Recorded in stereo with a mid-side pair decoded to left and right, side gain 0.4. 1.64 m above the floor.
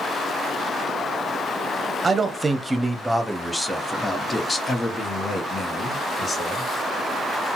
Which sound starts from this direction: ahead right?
A man speaking, at 2.0 s.